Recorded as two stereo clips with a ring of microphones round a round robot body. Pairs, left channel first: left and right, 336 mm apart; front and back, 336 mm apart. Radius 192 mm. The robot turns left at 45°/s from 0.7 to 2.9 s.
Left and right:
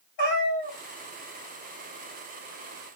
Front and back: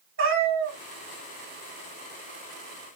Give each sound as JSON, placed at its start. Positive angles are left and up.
{"t": 0.2, "sound": "a cat meowing", "azimuth_deg": 125, "distance_m": 3.0}